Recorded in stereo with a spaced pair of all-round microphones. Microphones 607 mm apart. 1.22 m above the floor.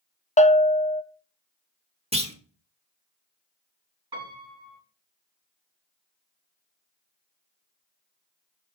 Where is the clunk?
10° right (ahead or behind), 1.1 m.